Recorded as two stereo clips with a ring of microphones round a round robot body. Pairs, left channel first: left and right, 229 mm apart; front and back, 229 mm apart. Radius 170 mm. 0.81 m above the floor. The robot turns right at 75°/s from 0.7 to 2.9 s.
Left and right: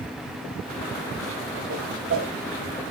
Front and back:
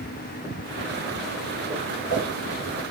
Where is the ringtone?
No ringtone in this recording.